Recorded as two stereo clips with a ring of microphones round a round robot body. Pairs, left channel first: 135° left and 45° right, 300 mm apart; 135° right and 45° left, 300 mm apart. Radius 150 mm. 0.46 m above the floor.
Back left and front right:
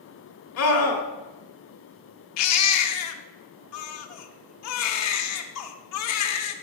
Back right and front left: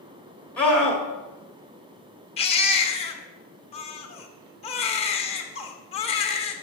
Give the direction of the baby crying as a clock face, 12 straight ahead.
7 o'clock.